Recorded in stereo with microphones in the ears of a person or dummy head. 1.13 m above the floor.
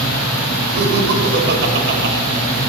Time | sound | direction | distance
0.8 | laughter | 60° right (ahead or behind) | 5 m